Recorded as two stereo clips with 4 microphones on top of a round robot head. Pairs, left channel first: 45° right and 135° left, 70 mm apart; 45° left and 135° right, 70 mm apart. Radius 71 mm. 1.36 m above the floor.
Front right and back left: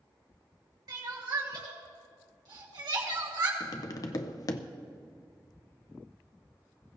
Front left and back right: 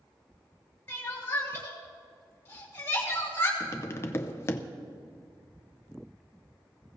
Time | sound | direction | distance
0.9 | crying | 105° left | 2.5 m
3.6 | tapping | 10° right | 0.7 m